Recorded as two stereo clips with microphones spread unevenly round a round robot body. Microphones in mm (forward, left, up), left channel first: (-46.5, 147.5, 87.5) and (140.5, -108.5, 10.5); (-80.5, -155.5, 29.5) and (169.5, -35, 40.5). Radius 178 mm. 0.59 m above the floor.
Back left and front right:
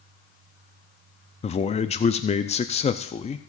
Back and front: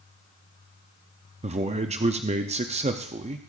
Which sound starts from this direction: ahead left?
A man speaking, at 1.4 s.